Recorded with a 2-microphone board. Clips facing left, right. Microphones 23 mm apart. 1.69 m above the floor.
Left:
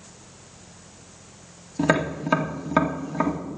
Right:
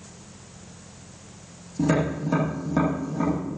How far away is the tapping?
About 1.9 m.